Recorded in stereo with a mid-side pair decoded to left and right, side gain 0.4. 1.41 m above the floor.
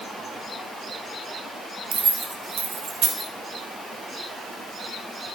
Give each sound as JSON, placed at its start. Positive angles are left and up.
{"t": 1.9, "sound": "keys jangling", "azimuth_deg": -65, "distance_m": 2.5}